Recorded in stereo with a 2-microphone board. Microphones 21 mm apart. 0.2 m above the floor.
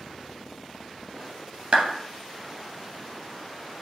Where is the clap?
60° right (ahead or behind), 2 m.